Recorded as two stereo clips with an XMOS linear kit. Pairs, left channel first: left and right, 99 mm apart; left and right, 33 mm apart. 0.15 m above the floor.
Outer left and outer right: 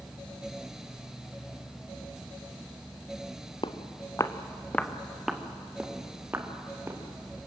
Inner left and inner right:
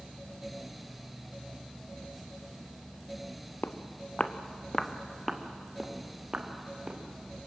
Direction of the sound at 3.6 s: 55° left (ahead or behind).